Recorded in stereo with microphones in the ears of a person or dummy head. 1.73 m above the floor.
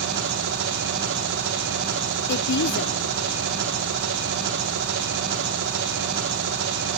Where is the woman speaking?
60° left (ahead or behind), 0.8 m.